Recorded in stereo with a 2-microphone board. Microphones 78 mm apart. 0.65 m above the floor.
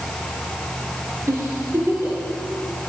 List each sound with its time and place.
1.3 s a giggle: 35° right (ahead or behind), 3.5 m